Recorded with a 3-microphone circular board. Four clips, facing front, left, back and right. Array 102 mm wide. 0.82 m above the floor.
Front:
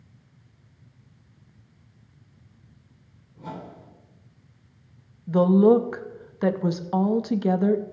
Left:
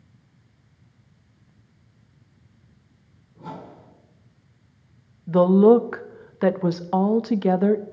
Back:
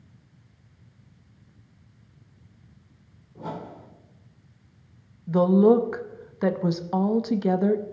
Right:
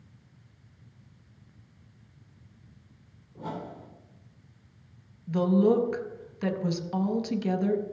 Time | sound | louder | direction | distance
3.4 | a whoosh | right 1 dB, back 3 dB | 155° right | 3.5 m
5.3 | a woman speaking | left 9 dB, front 1 dB | 95° left | 0.7 m